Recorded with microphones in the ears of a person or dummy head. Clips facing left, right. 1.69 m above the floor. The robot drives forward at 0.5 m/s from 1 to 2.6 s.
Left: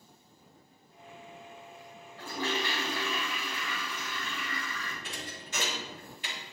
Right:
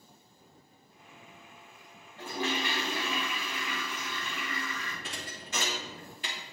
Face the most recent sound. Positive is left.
turn(degrees=-35)  # may be behind; listen again after turning